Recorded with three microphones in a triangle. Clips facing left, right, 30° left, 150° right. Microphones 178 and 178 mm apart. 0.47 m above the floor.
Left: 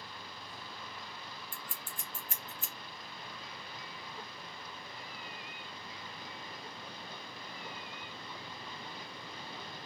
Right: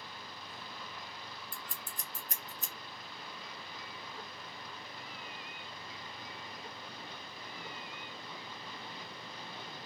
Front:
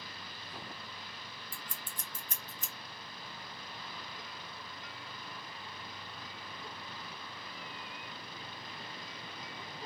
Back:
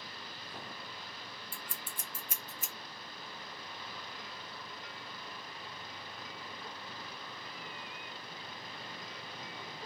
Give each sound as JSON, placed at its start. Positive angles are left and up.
{"t": 1.5, "sound": "scissors", "azimuth_deg": -75, "distance_m": 0.9}